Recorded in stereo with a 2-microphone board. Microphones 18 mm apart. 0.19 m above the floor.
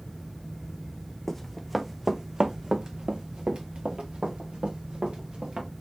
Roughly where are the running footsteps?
Centre.